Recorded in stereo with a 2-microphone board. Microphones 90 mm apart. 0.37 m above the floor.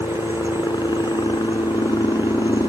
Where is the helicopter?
55° left (ahead or behind).